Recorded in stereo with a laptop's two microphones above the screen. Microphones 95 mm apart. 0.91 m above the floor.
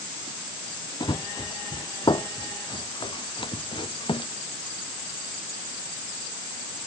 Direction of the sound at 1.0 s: 50° left (ahead or behind).